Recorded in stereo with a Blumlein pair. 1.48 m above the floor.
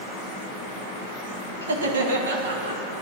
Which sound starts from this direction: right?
Laughter, at 1.6 s.